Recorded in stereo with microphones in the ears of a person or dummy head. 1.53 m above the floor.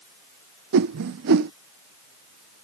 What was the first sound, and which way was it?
A whoosh, 65° right (ahead or behind).